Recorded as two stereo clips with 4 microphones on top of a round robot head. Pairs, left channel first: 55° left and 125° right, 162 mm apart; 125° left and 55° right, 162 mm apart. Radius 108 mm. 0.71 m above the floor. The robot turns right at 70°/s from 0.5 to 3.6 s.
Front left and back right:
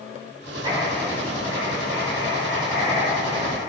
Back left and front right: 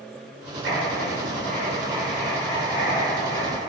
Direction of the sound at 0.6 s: 70° right.